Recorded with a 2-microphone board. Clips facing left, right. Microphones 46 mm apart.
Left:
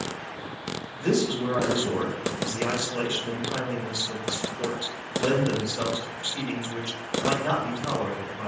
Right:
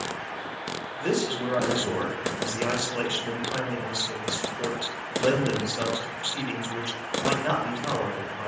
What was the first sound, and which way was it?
A man speaking, 20° right (ahead or behind).